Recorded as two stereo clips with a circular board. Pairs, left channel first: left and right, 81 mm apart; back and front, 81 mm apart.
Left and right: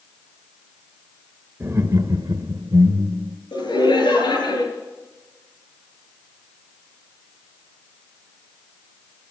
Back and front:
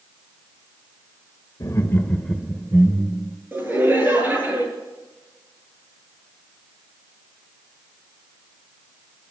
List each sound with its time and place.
1.6 s laughter: 145° right, 1.4 m; by 3.4 s 55° right, 2 m
3.5 s laughter: 65° left, 9 m